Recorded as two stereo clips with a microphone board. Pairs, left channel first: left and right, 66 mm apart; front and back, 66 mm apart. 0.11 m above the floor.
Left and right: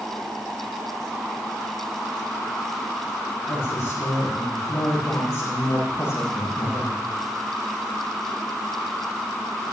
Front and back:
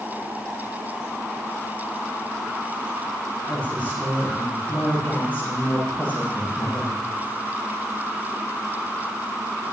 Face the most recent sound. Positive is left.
turn(degrees=65)